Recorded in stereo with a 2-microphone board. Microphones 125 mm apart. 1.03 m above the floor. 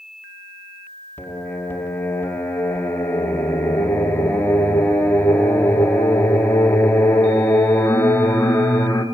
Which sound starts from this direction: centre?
Singing, at 1.2 s.